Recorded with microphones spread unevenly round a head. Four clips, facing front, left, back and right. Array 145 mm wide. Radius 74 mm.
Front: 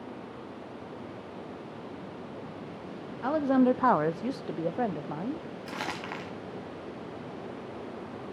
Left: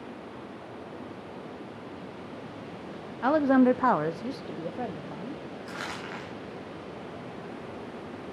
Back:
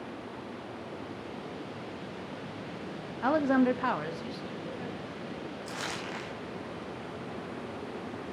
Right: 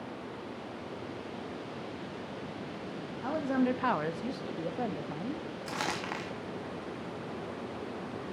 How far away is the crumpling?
About 3.5 m.